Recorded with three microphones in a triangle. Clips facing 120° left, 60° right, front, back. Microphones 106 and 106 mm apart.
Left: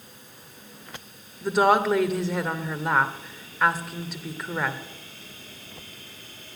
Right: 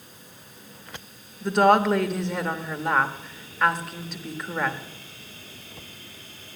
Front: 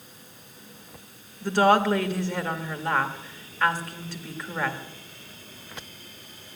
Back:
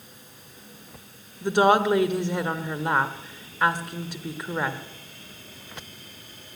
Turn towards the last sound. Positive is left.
turn(degrees=-155)